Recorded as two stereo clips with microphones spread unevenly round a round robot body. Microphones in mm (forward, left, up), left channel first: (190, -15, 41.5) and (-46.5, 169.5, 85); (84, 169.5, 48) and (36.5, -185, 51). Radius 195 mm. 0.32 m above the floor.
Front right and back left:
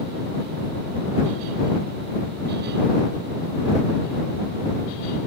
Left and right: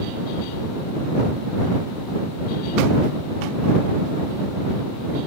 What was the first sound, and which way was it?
Only background noise.